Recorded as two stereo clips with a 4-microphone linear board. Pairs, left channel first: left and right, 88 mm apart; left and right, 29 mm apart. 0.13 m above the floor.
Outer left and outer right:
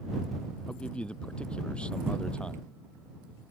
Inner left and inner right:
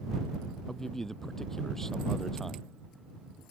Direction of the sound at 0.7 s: 15° left (ahead or behind).